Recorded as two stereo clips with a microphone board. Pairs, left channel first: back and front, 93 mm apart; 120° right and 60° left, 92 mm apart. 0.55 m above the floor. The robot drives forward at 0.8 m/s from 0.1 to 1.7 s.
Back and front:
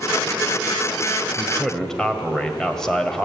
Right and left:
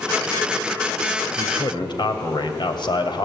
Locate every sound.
1.4 s a man speaking: 90° right, 2 m; by 3.2 s 95° right, 2 m